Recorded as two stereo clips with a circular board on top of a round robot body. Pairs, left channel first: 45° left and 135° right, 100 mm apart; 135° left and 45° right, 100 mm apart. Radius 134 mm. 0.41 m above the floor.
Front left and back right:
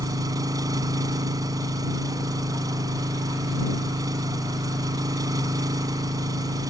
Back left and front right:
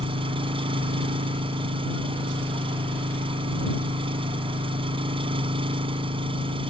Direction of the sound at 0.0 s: 80° right.